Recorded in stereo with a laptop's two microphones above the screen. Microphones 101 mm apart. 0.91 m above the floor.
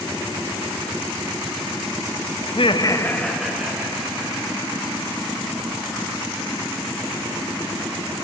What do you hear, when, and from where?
2.5 s laughter: 65° left (ahead or behind), 0.8 m; by 5.1 s 20° right (ahead or behind), 3.5 m